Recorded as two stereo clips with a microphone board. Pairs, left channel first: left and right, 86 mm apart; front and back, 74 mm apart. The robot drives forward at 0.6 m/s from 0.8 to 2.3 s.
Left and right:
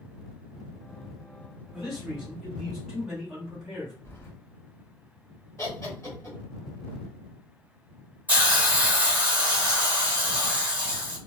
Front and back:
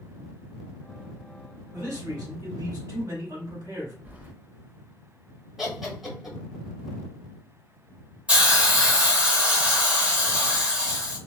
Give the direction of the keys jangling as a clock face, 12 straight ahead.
8 o'clock.